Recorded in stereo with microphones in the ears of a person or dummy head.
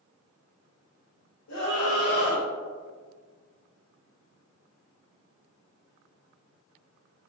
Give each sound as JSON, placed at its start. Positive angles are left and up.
{"t": 1.5, "sound": "a scream", "side_deg": 90, "distance_m": 1.5}